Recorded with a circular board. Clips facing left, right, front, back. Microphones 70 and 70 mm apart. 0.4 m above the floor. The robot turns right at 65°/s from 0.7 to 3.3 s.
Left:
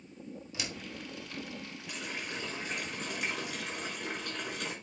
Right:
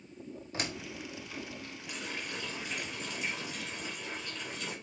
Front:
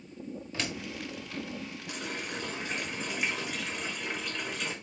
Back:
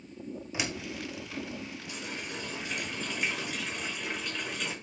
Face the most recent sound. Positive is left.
turn(degrees=90)